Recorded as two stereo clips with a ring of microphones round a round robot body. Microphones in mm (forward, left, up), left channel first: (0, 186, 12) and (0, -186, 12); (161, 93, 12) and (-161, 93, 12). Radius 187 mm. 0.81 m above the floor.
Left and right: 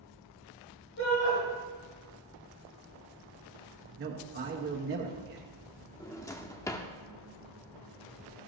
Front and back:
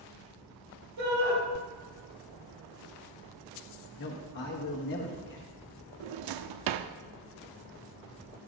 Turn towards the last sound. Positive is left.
turn(degrees=170)